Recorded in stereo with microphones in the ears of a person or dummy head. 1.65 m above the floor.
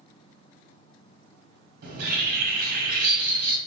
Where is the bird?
55° right (ahead or behind), 0.9 m.